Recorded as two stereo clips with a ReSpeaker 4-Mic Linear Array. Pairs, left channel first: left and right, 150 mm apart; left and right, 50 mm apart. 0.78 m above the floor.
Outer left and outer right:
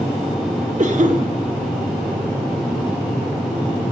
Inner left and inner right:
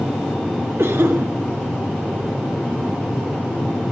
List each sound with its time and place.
0.8 s a cough: 55° right (ahead or behind), 1.6 m